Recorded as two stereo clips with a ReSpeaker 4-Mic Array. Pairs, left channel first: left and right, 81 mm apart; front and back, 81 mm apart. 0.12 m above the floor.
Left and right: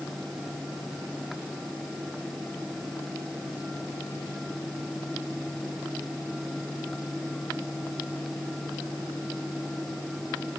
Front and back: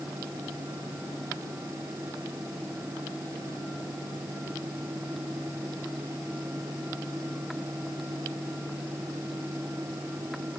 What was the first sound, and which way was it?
Only background noise.